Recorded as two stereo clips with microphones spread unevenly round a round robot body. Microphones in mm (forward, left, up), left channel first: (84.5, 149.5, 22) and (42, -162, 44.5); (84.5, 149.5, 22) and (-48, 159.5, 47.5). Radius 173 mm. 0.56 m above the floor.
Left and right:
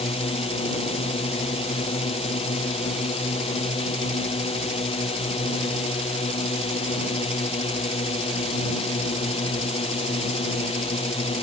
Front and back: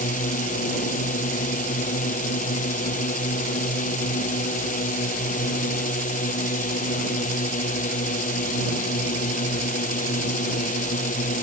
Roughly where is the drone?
Ahead.